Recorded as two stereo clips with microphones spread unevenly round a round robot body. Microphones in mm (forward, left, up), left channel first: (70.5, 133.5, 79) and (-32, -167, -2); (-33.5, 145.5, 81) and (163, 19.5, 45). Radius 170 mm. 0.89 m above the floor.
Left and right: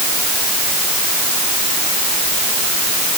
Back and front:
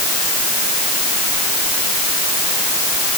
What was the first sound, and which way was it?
Only background noise.